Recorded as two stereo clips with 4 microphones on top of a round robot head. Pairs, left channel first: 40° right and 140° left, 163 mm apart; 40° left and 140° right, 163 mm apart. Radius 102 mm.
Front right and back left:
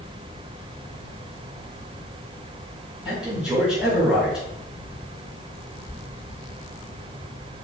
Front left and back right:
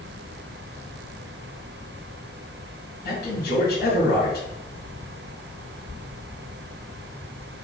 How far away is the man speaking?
About 2.5 m.